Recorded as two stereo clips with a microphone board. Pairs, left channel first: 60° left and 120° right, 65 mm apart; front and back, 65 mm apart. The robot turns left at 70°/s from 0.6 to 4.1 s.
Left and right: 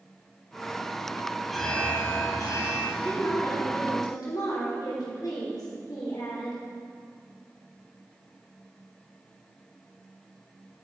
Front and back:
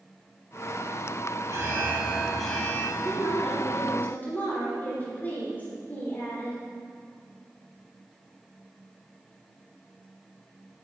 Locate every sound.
1.5 s an alarm: 150° left, 3.5 m; by 2.9 s 55° left, 3.5 m
3.0 s a woman speaking: 140° left, 3 m; by 6.6 s 60° left, 3 m